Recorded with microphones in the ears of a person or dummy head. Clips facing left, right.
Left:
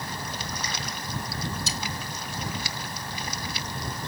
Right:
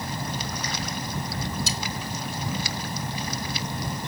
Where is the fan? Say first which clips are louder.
Right 4 dB; 20° right (ahead or behind).